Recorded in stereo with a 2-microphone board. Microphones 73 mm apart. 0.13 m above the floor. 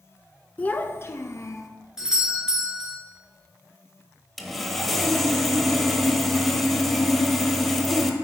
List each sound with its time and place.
0.6 s a child speaking: 20° left (ahead or behind), 0.7 m; by 1.7 s 50° left (ahead or behind), 1.5 m
2.0 s a doorbell: 10° right (ahead or behind), 2.5 m
4.4 s sawing: 5° left (ahead or behind), 1.4 m